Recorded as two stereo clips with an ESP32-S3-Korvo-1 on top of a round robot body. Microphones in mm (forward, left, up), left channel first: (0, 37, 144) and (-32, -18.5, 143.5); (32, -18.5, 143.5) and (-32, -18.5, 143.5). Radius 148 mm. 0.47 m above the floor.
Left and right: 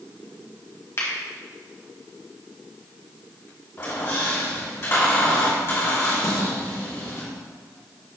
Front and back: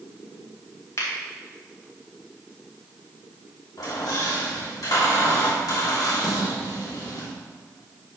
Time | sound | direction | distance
1.0 | a finger snap | 30° left | 2 m
3.8 | a squeak | 20° left | 2.5 m
6.2 | a snare drum | 90° left | 1.8 m